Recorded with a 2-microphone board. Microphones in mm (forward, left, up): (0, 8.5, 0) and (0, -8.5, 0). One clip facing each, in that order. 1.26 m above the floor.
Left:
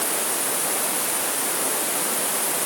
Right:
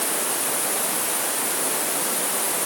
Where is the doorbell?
No doorbell in this recording.